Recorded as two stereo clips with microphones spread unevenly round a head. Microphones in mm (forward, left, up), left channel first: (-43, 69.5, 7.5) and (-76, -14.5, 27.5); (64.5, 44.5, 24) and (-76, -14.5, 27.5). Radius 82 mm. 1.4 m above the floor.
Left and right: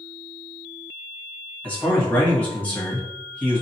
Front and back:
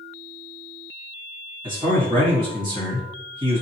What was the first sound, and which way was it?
A man speaking, 145° left.